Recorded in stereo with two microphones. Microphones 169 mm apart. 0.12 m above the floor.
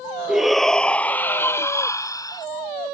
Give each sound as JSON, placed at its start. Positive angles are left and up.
{"t": 0.3, "sound": "a shout", "side_deg": -5}